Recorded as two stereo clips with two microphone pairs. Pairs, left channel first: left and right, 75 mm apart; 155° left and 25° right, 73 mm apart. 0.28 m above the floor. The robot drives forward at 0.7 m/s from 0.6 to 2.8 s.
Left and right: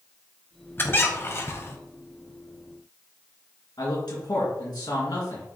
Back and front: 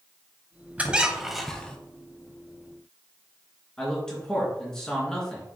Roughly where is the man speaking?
Left.